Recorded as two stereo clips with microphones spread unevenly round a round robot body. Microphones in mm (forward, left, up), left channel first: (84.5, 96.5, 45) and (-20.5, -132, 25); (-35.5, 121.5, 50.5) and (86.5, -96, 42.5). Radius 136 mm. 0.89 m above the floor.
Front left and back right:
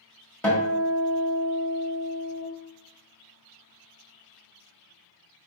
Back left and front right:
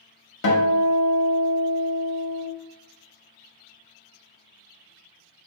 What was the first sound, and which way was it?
A guitar, 150° left.